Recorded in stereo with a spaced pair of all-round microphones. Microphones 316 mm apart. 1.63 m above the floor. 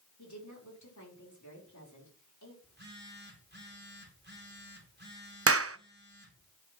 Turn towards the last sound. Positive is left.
turn(degrees=-45)  # may be behind; listen again after turning